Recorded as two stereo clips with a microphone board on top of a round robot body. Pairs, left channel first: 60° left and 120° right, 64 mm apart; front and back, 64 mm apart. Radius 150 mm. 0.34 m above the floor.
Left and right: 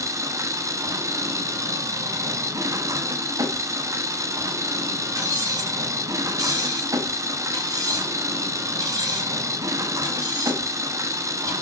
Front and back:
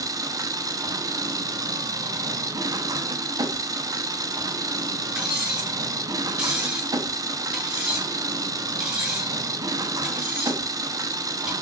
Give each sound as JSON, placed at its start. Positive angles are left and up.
{"t": 0.0, "sound": "an engine running", "azimuth_deg": -155, "distance_m": 1.2}
{"t": 5.2, "sound": "cutlery clinking", "azimuth_deg": -100, "distance_m": 5.0}